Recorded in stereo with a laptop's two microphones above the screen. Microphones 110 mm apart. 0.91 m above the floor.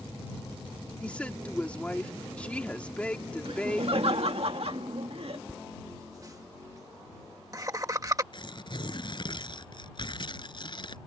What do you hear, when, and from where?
1.0 s a woman speaking: 10° left (ahead or behind)
3.5 s laughter: 65° right (ahead or behind)
5.5 s laughter: 35° right (ahead or behind)
8.3 s tearing paper: 50° left (ahead or behind)